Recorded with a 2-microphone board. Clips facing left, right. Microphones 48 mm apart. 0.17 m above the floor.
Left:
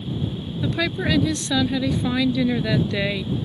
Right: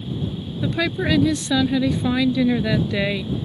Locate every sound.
0.6 s a woman speaking: 5° right (ahead or behind)